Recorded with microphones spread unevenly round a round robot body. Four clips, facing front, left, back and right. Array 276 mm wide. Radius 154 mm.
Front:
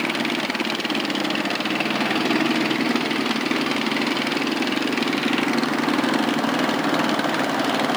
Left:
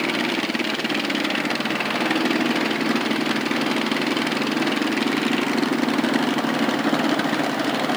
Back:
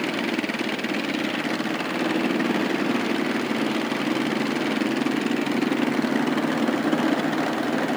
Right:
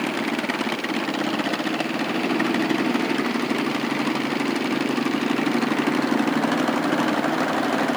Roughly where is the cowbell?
No cowbell in this recording.